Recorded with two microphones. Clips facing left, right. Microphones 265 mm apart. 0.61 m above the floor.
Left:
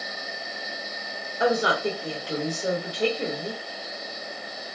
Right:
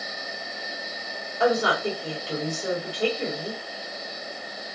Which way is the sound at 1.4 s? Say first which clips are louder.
Right 1 dB; 20° left (ahead or behind).